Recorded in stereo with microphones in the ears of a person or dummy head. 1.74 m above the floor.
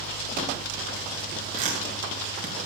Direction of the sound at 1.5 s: 50° right (ahead or behind).